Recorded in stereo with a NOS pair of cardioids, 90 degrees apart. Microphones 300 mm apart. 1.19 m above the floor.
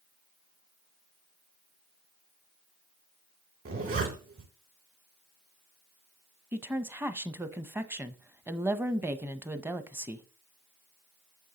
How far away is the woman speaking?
About 0.7 m.